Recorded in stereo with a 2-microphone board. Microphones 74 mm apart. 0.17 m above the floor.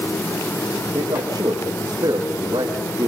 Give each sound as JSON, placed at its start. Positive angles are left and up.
{"t": 0.9, "sound": "a man speaking", "side_deg": -55, "distance_m": 6.5}